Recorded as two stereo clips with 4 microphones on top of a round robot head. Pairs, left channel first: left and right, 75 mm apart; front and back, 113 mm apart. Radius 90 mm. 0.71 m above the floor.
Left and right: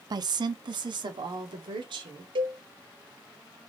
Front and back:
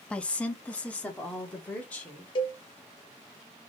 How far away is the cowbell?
About 0.6 m.